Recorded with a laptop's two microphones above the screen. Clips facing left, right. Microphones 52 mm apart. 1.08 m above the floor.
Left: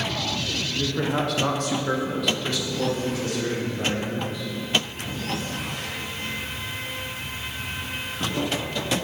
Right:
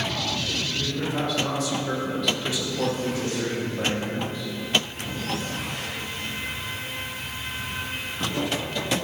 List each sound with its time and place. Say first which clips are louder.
0.8 s a man speaking: left 5 dB; 80° left, 1.2 m; by 4.5 s 40° right (ahead or behind), 2.5 m